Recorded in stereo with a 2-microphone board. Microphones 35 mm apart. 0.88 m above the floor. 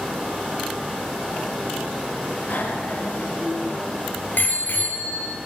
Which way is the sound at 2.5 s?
90° left.